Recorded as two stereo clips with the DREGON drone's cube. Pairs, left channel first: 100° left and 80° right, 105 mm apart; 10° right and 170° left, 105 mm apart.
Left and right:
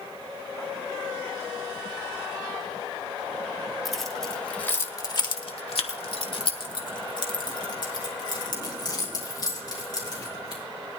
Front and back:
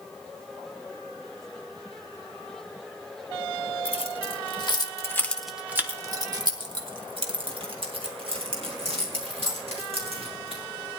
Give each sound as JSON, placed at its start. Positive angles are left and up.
{"t": 3.9, "sound": "keys jangling", "azimuth_deg": 10, "distance_m": 2.5}